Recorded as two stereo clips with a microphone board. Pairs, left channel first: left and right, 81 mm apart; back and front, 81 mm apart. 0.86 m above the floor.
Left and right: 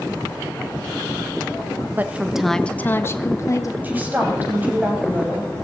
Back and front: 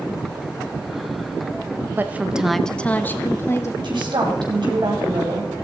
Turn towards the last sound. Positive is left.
turn(degrees=-20)